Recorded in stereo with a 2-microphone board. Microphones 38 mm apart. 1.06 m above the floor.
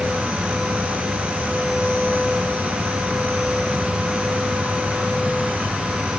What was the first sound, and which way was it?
Only background noise.